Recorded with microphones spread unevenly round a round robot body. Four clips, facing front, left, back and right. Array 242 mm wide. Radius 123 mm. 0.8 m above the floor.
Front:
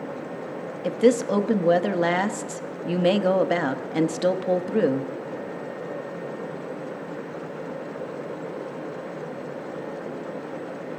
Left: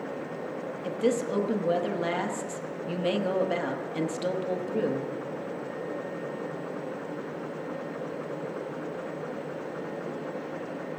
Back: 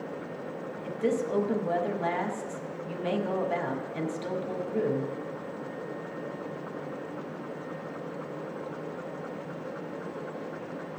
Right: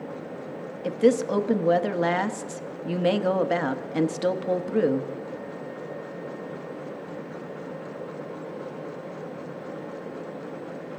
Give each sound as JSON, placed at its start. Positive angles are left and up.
{"t": 0.8, "sound": "a woman speaking", "azimuth_deg": -25, "distance_m": 0.9}